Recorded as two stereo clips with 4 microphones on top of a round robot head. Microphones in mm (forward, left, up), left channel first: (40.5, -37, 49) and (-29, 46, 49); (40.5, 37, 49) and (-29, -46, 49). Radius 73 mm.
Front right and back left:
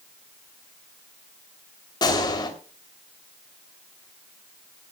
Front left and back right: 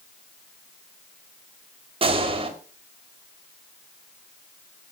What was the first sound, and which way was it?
A gunshot, 100° right.